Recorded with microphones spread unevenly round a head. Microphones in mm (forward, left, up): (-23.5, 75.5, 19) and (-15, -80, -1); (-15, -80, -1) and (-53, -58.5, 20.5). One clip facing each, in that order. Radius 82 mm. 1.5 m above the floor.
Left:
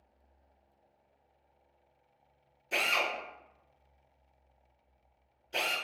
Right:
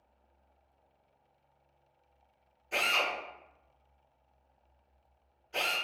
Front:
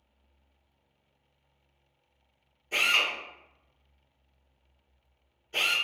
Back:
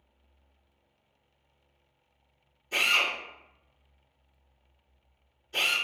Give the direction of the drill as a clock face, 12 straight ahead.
10 o'clock.